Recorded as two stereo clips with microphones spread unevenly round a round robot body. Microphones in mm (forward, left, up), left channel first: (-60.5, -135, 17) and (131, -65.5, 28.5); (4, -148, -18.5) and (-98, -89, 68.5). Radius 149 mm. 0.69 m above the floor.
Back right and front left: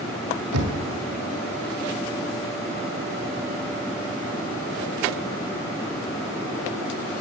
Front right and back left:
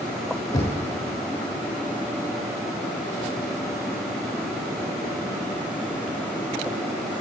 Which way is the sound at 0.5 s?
40° left.